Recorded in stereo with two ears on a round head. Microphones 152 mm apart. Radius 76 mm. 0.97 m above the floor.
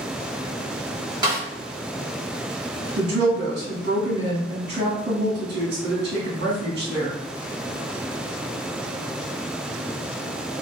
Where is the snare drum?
25° right (ahead or behind), 1.1 m.